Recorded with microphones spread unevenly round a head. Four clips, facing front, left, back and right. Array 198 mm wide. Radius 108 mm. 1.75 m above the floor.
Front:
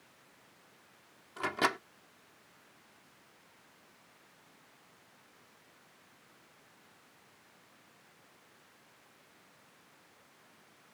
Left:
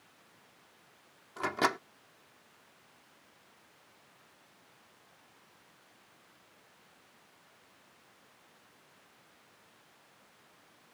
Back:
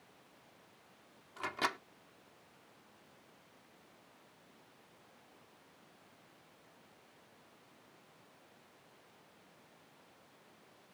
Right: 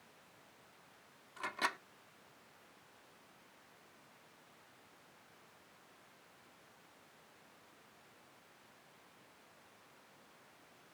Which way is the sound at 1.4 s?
55° left.